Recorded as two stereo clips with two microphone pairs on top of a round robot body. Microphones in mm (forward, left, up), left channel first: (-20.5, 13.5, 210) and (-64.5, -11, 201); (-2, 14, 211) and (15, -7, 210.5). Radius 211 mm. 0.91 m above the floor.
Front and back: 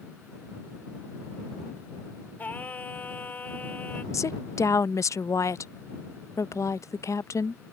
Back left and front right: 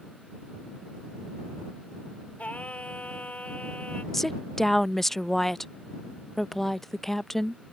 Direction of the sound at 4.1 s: 50° left.